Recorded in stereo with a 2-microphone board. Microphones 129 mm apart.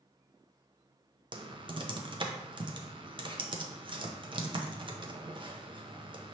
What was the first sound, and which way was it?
Typing on a keyboard, 40° right (ahead or behind).